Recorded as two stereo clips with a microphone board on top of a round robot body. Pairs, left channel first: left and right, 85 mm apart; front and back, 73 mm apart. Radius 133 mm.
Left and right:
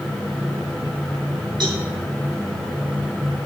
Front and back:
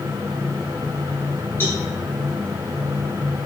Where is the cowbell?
60° right, 5.5 m.